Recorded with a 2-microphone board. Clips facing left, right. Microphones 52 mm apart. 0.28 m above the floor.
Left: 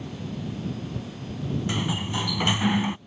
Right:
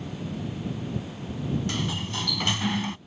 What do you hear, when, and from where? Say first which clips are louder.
1.7 s a sliding door: left 2 dB; 15° left (ahead or behind)